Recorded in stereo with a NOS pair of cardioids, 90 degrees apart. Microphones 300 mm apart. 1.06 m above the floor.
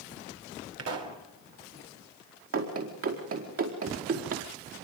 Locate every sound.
0.8 s a pop: 55° right, 3.5 m
2.5 s running footsteps: 50° right, 5 m